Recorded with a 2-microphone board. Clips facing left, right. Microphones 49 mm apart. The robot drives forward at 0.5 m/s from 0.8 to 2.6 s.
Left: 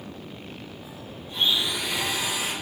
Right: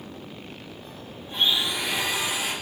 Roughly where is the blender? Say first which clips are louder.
Right 1 dB; right.